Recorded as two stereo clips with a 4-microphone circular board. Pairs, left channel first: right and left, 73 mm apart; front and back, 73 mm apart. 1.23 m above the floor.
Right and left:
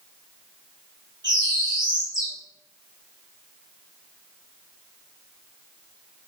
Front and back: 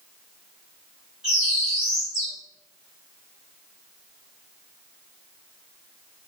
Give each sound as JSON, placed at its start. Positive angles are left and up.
{"t": 1.2, "sound": "a bird", "azimuth_deg": 100, "distance_m": 2.5}